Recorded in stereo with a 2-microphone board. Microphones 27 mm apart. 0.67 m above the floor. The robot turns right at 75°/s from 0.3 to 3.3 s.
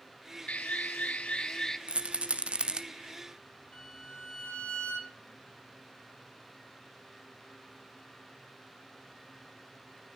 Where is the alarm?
60° left, 0.7 m; by 1.8 s 160° left, 0.7 m.